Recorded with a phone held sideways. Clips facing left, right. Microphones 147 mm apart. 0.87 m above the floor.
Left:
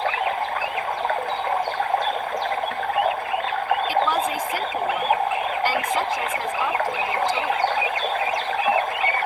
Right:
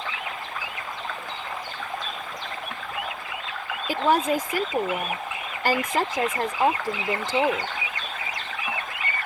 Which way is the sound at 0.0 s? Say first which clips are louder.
Left 11 dB; 55° left (ahead or behind).